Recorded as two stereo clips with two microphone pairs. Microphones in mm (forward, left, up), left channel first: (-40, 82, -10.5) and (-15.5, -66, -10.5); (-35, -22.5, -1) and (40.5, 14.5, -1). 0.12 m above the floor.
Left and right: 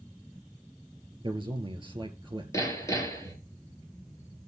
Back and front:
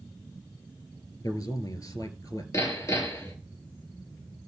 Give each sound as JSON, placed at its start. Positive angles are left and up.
{"t": 1.2, "sound": "a man speaking", "azimuth_deg": -130, "distance_m": 2.5}
{"t": 2.5, "sound": "hammering", "azimuth_deg": 165, "distance_m": 1.8}